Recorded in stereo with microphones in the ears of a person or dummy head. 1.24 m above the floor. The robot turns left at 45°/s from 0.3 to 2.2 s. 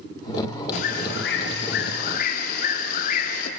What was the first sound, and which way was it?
A bird, 135° left.